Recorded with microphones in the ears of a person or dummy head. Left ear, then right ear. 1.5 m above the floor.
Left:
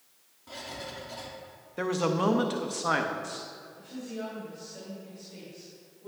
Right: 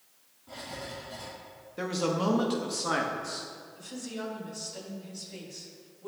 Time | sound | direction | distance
0.5 | writing | 70° left (ahead or behind) | 2.0 m
1.8 | a man speaking | 20° left (ahead or behind) | 0.6 m
3.8 | a woman speaking | 85° right | 2 m